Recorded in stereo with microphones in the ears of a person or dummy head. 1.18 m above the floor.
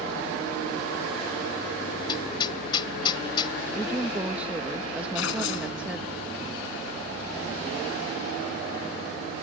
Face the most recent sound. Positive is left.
turn(degrees=75)  # may be behind; listen again after turning